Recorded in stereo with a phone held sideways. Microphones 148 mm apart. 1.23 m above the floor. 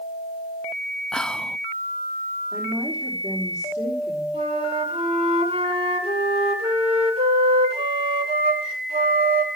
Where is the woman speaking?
50° right (ahead or behind), 4.5 m.